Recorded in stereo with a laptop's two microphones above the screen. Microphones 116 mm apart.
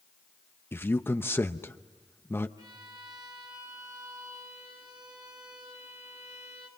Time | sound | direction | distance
0.7 | a man speaking | 20° left (ahead or behind) | 0.8 m
2.6 | a violin | 35° right (ahead or behind) | 6.5 m